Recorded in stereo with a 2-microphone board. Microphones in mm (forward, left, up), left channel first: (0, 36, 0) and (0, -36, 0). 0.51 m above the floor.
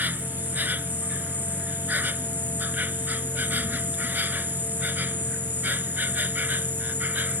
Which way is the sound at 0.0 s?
25° right (ahead or behind).